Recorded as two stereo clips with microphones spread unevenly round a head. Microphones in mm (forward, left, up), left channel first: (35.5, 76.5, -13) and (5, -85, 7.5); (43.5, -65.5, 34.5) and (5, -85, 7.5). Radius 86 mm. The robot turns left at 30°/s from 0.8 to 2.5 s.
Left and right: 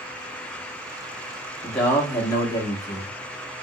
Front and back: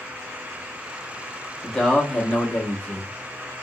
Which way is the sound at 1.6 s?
150° left.